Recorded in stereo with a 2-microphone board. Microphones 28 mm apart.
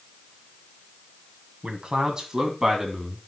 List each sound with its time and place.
1.6 s a man speaking: 35° right (ahead or behind), 3 m; by 3.2 s 10° right (ahead or behind), 3 m